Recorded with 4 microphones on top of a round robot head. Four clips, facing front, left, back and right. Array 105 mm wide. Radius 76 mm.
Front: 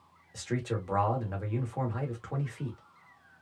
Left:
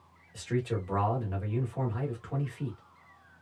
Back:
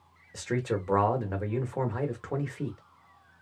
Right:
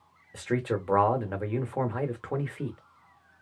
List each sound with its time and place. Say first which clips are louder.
0.3 s a man speaking: right 3 dB, back 4 dB; 115° right, 1.2 m